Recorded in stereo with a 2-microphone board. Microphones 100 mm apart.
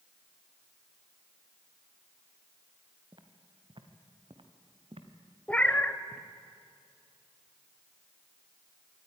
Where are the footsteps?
50° right (ahead or behind), 2.5 m; by 6.3 s 85° right, 2.5 m.